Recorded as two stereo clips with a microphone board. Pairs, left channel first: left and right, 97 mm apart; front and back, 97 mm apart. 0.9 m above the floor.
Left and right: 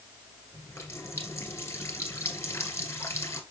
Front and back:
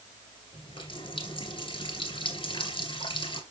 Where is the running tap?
25° left, 2.5 m.